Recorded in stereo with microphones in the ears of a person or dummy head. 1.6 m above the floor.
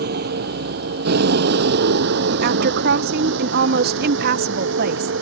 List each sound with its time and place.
0.0 s a vehicle: 60° right (ahead or behind); by 5.2 s 75° right (ahead or behind)
2.4 s a woman speaking: 55° right (ahead or behind)